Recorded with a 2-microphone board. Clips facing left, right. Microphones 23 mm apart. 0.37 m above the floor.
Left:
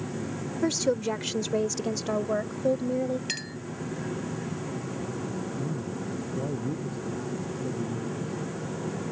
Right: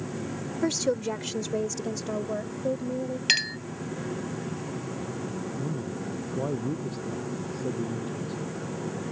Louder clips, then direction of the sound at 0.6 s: Left 1 dB; 5° right (ahead or behind).